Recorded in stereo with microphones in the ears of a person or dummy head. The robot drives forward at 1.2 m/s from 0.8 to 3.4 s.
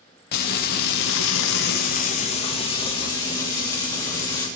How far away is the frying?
About 1.3 m.